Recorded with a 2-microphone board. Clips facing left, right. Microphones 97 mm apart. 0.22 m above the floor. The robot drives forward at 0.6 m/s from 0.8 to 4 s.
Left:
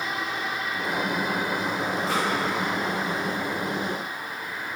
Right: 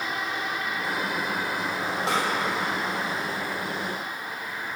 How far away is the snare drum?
About 5 m.